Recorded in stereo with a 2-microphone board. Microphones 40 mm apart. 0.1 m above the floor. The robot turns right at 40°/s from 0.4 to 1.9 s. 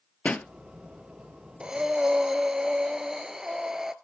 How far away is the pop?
About 0.6 m.